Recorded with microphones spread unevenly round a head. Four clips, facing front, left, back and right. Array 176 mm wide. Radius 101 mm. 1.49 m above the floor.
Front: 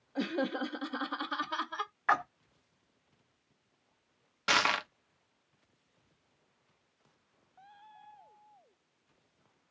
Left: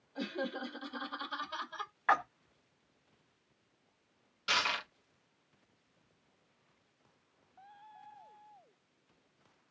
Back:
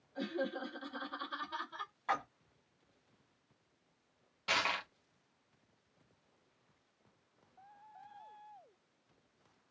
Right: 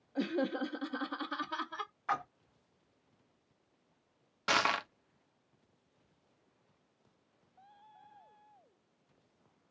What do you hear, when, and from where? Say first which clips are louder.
0.1 s laughter: right 5 dB, front 6 dB; 25° right, 0.5 m
2.1 s a splash: left 6 dB, front 7 dB; 55° left, 1.2 m
4.5 s crushing: right 4 dB, front 6 dB; 25° right, 0.5 m